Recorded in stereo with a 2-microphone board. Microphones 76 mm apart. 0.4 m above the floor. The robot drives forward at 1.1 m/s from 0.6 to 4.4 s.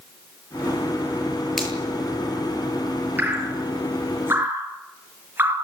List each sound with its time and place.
1.6 s a finger snap: centre (ahead or behind), 8 m
3.2 s dripping: 25° right (ahead or behind), 6.5 m; by 5.5 s 30° right (ahead or behind), 5.5 m